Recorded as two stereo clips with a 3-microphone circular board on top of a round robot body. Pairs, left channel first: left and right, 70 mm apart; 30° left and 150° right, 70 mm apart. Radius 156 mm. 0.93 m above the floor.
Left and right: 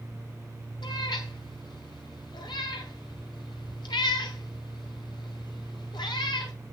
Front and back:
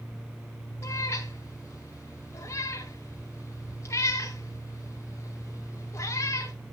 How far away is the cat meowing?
About 2.5 m.